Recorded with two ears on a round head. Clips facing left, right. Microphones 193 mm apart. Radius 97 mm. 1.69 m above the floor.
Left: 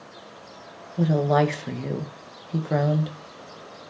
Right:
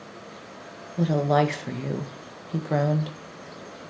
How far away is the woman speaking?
About 1.7 m.